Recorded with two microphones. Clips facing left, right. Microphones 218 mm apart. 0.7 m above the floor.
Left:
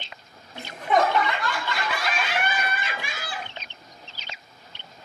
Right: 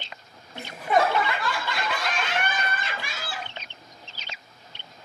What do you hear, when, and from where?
0.6 s laughter: 5° right (ahead or behind), 1.3 m; by 3.5 s 20° left (ahead or behind), 0.7 m